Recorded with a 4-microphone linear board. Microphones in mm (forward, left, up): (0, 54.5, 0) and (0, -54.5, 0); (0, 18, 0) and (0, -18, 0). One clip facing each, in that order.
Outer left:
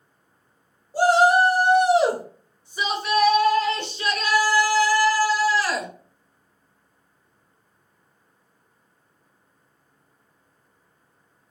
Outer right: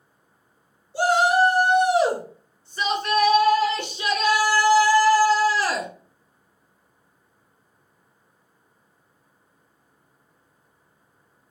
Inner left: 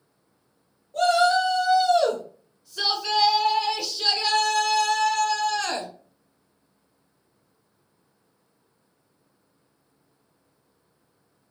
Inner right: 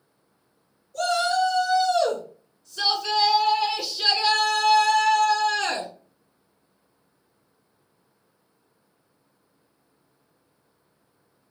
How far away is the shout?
About 2 m.